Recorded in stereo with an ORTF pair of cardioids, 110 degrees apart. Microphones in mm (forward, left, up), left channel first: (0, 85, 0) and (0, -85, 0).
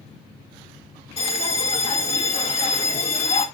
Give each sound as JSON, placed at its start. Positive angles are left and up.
{"t": 1.2, "sound": "a bell", "azimuth_deg": 35, "distance_m": 2.5}